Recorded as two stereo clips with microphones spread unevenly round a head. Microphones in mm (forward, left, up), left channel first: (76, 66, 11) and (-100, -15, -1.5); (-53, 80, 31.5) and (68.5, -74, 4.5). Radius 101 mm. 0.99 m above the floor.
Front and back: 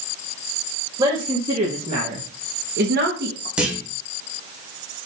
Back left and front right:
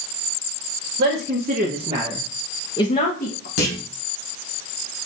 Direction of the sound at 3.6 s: 120° left.